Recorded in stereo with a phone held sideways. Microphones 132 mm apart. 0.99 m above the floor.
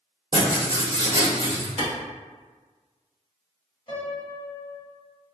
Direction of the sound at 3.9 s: 35° left (ahead or behind).